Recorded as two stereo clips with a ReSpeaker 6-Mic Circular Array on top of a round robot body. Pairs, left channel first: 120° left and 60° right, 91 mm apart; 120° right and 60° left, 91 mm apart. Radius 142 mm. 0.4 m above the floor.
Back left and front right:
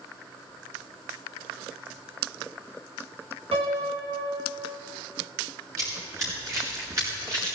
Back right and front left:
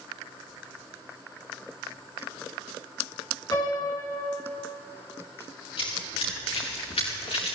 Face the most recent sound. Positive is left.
turn(degrees=-115)